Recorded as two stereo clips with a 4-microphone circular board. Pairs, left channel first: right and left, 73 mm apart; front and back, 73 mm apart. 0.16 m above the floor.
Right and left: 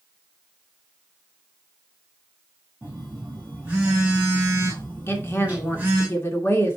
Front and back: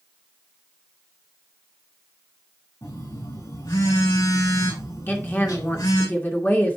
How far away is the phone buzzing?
About 4 m.